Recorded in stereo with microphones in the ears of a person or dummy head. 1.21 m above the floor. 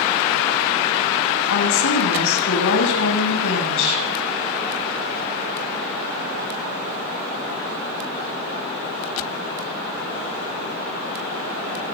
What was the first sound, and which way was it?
A woman speaking, 75° left (ahead or behind).